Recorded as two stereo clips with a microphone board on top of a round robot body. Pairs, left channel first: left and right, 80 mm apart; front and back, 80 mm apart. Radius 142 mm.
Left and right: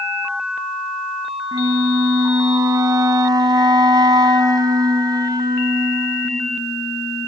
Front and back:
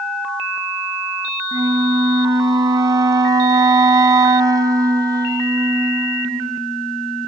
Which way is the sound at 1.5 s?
130° right.